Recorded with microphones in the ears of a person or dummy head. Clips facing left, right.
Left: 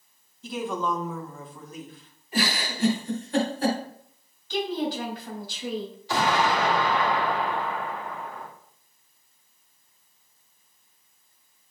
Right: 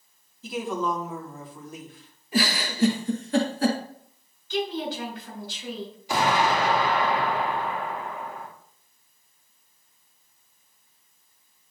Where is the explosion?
10° right (ahead or behind), 2 m.